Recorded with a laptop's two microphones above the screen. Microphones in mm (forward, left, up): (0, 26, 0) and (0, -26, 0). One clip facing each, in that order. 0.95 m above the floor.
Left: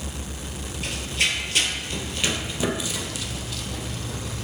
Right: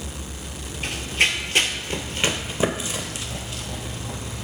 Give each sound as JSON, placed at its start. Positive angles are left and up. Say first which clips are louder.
{"t": 0.8, "sound": "running footsteps", "louder": "right 4 dB", "side_deg": -30, "distance_m": 1.0}